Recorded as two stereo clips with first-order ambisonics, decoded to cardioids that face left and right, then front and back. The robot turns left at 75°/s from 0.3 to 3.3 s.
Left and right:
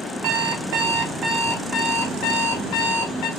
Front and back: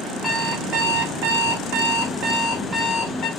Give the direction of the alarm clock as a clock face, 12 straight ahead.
3 o'clock.